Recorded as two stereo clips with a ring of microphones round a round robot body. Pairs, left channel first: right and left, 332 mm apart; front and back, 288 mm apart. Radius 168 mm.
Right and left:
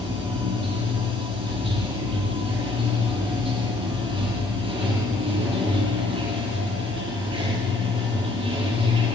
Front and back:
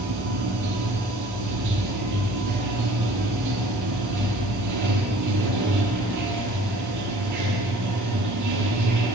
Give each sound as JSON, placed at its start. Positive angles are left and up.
{"t": 0.0, "sound": "running water", "azimuth_deg": 165, "distance_m": 9.5}